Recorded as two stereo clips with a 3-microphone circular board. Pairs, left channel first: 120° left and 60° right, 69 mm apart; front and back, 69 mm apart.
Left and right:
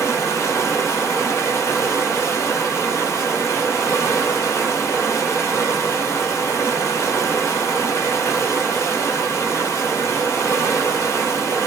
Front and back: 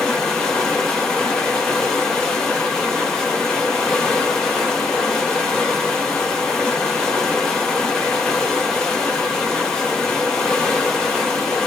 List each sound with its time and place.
0.0 s running water: 80° left, 0.7 m